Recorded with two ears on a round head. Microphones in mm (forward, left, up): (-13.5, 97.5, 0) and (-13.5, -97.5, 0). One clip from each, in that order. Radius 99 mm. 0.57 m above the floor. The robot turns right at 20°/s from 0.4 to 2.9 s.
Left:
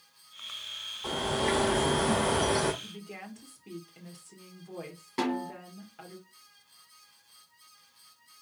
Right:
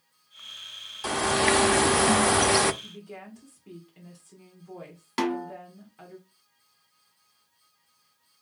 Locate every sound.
1.0 s a bird: 110° right, 0.5 m; by 2.7 s 80° right, 0.5 m
2.8 s a woman speaking: 20° left (ahead or behind), 1.7 m; by 6.2 s 15° left (ahead or behind), 1.7 m
5.2 s a snare drum: 45° right (ahead or behind), 1.6 m